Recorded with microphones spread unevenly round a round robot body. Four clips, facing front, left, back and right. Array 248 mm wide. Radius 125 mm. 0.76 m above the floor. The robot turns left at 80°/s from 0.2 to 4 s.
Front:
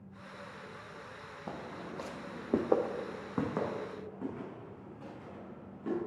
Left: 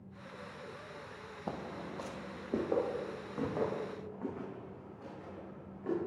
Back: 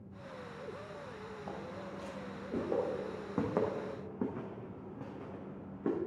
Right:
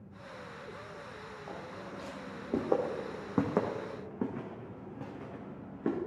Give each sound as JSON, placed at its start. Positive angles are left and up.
{"t": 1.5, "sound": "footsteps", "azimuth_deg": 70, "distance_m": 2.0}